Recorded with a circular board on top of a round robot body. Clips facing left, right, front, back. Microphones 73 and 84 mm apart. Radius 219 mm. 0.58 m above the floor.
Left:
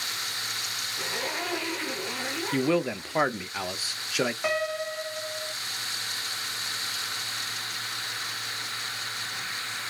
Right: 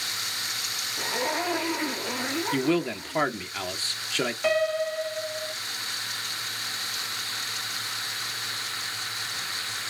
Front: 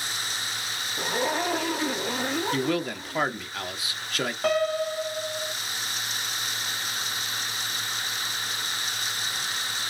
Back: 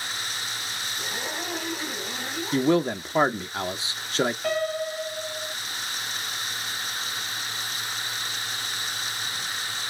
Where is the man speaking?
160° left, 0.9 m.